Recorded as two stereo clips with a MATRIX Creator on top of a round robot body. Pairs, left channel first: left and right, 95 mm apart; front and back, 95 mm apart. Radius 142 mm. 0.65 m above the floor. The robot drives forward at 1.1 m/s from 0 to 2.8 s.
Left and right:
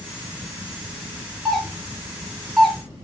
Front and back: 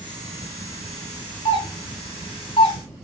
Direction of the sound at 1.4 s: 5° left.